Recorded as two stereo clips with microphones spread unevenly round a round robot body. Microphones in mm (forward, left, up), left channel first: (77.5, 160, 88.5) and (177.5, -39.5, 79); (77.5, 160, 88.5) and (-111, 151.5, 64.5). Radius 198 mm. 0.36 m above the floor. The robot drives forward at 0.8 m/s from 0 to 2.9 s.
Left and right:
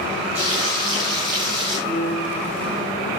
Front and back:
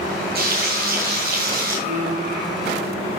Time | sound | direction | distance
0.3 | frying | 135° right | 9.5 m
1.9 | a piano | 125° right | 8.5 m